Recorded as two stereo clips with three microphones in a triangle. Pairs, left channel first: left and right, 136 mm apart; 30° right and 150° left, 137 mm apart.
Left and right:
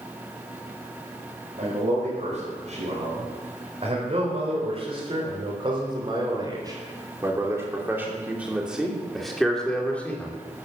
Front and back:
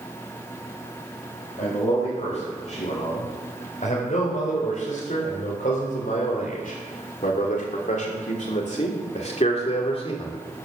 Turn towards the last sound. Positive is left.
turn(degrees=15)